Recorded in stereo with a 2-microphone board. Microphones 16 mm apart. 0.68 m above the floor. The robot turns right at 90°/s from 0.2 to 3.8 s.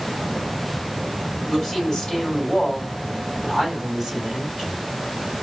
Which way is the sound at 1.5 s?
10° left.